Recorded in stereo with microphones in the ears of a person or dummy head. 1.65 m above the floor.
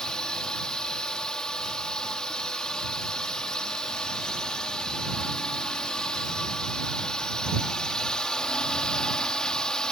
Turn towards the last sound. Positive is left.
turn(degrees=5)  # may be behind; listen again after turning